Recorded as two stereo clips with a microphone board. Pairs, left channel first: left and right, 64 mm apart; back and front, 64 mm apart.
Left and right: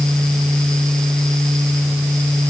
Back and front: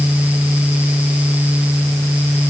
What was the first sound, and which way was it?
Only background noise.